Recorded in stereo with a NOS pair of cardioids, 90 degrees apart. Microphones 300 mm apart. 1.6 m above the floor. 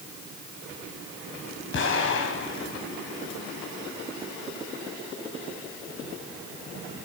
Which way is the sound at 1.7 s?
40° left.